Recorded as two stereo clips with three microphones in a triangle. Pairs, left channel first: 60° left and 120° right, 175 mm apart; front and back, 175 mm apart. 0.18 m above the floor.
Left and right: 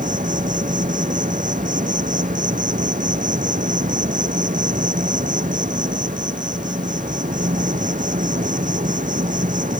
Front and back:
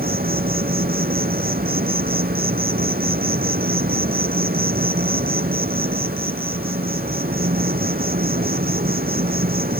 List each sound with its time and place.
0.0 s an insect: 155° right